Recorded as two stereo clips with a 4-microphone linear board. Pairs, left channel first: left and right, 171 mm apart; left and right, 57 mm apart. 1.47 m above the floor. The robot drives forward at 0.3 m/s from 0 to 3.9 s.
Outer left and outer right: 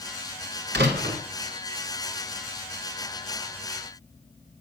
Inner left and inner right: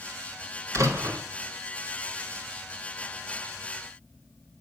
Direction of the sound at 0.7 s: 75° right (ahead or behind).